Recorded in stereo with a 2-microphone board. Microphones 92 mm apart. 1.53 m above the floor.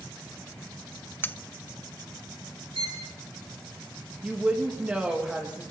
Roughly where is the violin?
Right.